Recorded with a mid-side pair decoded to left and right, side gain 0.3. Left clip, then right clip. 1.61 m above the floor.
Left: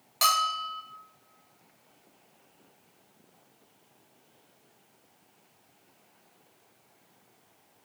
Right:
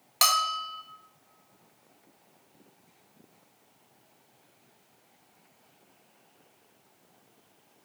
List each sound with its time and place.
0.2 s a bell: 65° right, 1.4 m